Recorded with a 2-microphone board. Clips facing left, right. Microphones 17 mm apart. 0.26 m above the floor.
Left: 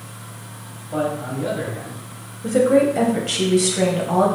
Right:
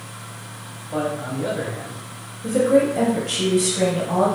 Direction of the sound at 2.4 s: 20° left (ahead or behind).